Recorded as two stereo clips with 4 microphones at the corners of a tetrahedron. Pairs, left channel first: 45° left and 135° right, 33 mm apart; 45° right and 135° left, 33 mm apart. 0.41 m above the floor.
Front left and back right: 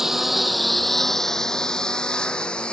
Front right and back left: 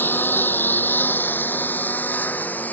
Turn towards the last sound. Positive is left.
turn(degrees=-10)